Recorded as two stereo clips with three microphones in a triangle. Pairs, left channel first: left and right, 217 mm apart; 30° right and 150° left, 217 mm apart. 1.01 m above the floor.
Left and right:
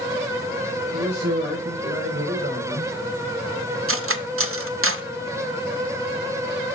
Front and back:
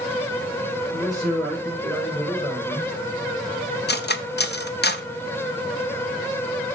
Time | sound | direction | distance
0.9 | a man speaking | 120° right | 4.5 m
3.9 | cutlery clinking | 75° right | 0.6 m